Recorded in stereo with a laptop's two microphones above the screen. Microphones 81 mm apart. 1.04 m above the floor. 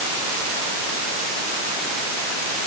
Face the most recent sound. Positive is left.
No sound to turn to.